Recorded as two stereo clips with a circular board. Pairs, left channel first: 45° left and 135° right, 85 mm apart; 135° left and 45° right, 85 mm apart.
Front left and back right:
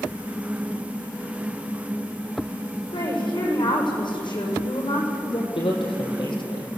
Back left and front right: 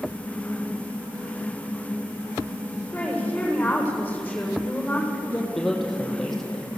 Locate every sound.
2.9 s a woman speaking: 60° left, 7 m
5.5 s a man speaking: 50° left, 6 m